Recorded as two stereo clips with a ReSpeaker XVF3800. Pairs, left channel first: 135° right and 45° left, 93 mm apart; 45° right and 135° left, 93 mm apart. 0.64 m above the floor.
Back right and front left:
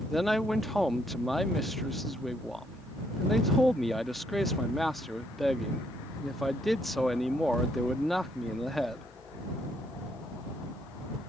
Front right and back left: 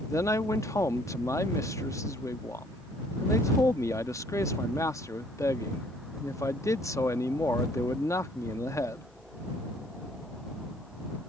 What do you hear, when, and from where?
0.1 s a man speaking: 50° right